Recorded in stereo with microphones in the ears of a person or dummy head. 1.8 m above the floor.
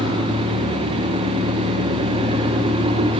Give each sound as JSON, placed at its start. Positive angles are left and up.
{"t": 0.0, "sound": "an engine running", "side_deg": -25, "distance_m": 1.1}